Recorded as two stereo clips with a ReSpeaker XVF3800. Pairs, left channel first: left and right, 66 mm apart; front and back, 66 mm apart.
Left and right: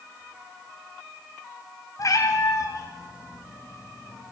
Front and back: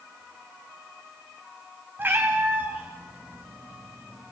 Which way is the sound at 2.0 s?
120° left.